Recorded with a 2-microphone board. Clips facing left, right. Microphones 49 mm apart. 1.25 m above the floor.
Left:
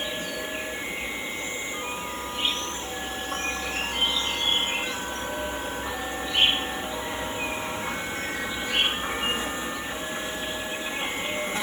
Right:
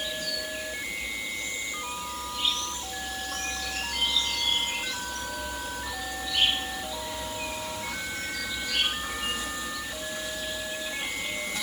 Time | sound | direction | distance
0.0 | an insect | 35° left (ahead or behind) | ?